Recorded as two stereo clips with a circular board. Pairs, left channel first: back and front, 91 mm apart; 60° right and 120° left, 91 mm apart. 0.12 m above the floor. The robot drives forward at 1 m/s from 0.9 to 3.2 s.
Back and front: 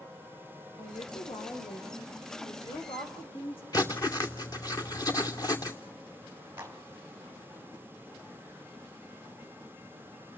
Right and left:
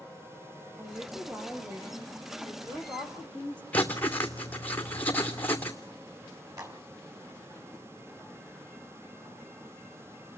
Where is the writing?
135° right, 2.5 m.